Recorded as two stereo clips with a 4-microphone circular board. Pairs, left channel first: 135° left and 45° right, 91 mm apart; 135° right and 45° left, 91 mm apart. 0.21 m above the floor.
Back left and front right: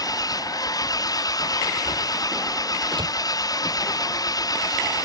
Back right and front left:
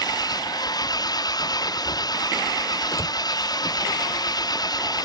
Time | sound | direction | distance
0.0 | an engine running | straight behind | ?
2.9 | a door slam | 80° right | ?